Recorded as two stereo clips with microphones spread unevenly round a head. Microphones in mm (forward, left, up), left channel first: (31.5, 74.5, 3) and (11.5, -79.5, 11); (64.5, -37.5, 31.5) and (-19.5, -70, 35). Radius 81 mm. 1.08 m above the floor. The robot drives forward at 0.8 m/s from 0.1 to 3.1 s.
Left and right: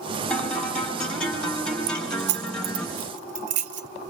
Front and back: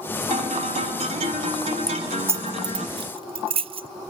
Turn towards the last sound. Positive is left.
turn(degrees=-145)